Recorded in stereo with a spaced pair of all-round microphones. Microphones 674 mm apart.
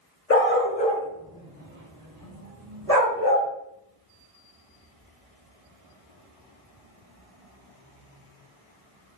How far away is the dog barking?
About 0.8 m.